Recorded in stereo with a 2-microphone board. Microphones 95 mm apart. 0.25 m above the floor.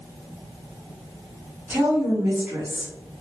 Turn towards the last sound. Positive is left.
turn(degrees=-25)  # may be behind; listen again after turning